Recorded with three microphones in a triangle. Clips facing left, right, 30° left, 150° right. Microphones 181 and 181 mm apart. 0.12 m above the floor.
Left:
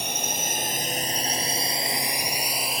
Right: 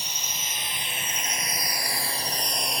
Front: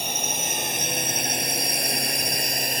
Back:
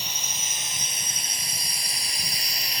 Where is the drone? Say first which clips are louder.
Left 9 dB, front 10 dB; 60° left; by 2.8 s straight ahead.